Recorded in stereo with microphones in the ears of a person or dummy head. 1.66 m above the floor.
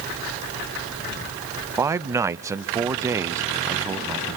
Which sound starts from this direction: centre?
A man speaking, at 1.8 s.